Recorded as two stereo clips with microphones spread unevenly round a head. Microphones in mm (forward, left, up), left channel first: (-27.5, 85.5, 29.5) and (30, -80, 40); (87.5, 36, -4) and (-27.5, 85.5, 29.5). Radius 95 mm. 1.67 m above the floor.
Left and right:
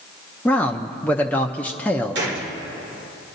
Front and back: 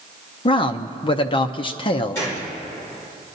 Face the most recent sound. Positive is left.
turn(degrees=-100)